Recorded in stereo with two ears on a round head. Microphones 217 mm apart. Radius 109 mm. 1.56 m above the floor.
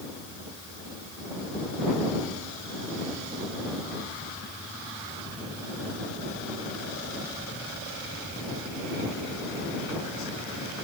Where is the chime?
No chime in this recording.